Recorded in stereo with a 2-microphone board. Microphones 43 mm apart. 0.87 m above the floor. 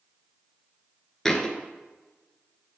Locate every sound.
1.2 s a thud: 10° left (ahead or behind), 1.0 m